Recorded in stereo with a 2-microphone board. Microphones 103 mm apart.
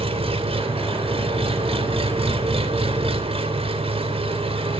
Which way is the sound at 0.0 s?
70° right (ahead or behind).